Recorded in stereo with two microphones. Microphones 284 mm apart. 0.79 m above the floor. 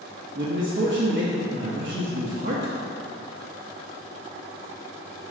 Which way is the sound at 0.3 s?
45° right (ahead or behind).